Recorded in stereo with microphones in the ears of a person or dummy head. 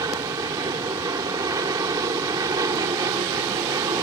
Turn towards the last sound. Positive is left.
turn(degrees=-20)  # may be behind; listen again after turning